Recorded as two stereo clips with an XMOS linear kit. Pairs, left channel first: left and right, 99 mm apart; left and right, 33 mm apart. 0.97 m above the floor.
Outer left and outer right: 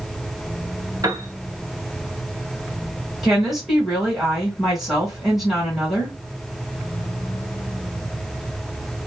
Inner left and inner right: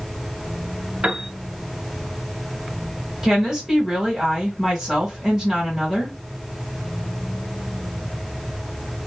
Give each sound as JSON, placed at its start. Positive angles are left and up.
{"t": 1.0, "sound": "a piano", "side_deg": -40, "distance_m": 0.6}
{"t": 3.2, "sound": "a woman speaking", "side_deg": -5, "distance_m": 1.2}